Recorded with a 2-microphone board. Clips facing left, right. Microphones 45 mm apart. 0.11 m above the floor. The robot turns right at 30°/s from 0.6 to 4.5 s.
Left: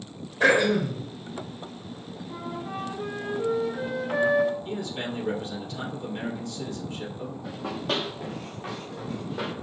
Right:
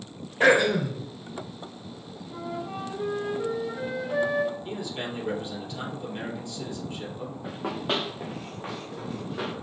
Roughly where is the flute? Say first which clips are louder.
Right 1 dB; centre.